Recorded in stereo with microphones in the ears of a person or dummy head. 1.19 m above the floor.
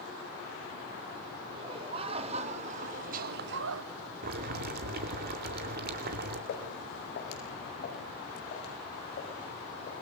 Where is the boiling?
45° right (ahead or behind), 2.5 m.